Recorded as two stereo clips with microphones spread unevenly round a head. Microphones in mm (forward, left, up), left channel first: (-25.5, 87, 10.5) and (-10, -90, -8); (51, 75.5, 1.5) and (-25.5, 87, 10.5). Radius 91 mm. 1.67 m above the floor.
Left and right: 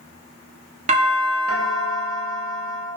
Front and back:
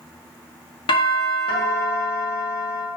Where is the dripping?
No dripping in this recording.